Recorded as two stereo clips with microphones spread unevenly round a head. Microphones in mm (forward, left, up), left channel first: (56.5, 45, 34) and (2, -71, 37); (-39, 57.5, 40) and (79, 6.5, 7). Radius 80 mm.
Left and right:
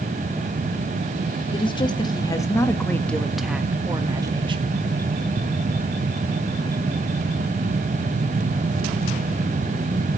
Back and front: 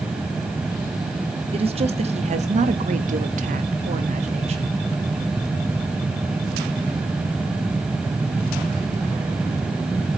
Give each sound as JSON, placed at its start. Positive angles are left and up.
{"t": 1.5, "sound": "a woman speaking", "azimuth_deg": 15, "distance_m": 2.5}